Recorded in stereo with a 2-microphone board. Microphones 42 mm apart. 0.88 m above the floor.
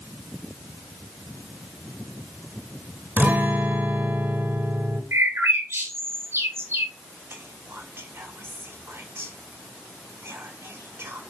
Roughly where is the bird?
Right.